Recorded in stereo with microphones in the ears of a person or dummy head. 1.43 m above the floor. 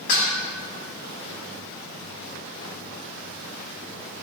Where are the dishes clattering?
70° left (ahead or behind), 2.5 m.